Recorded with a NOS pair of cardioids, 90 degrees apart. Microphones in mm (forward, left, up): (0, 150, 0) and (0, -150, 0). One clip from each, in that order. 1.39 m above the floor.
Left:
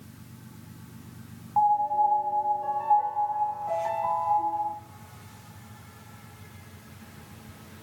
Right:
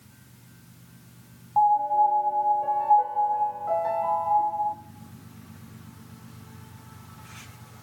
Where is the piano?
15° right, 0.7 m.